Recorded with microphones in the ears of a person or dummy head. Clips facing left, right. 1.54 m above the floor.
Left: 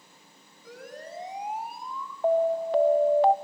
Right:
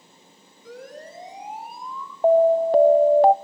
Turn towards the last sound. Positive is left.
turn(degrees=-35)  # may be behind; listen again after turning